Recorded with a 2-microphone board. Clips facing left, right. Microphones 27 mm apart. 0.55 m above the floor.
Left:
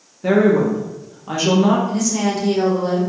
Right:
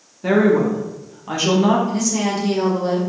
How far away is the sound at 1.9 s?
About 1.5 m.